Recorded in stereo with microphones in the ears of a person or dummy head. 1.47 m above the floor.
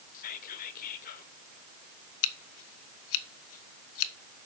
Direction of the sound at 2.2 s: 80° left.